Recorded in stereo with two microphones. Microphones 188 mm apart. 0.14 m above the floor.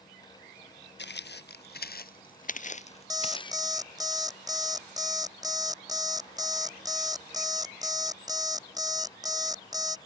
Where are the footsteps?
70° left (ahead or behind); by 3.7 s 20° left (ahead or behind).